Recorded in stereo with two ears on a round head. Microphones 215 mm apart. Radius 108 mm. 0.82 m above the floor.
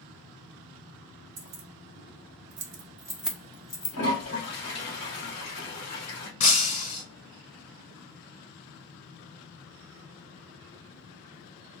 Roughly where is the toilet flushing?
Left.